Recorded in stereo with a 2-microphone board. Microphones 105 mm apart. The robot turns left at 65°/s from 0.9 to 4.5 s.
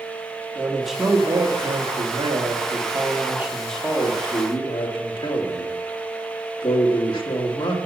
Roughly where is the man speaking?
Ahead.